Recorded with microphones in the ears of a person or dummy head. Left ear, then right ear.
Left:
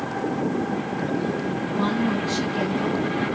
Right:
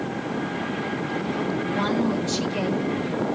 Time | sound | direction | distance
1.7 | a woman speaking | 25° right (ahead or behind) | 3.5 m